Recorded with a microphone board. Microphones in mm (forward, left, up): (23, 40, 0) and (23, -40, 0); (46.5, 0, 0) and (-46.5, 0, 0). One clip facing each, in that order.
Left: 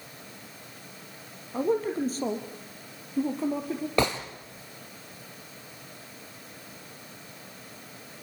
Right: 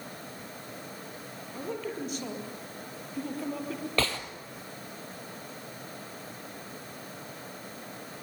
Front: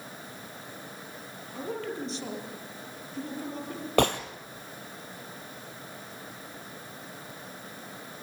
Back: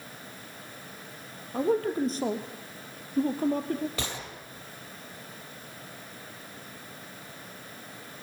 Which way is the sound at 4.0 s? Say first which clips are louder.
Left 5 dB, front 13 dB; 20° left.